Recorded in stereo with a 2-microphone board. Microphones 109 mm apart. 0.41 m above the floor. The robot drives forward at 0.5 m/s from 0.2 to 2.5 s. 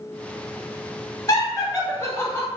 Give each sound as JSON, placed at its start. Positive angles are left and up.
{"t": 1.3, "sound": "laughter", "side_deg": 30, "distance_m": 1.4}